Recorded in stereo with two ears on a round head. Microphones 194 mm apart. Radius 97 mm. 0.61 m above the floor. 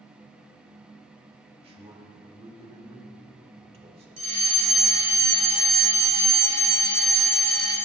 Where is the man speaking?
30° right (ahead or behind), 1.4 m.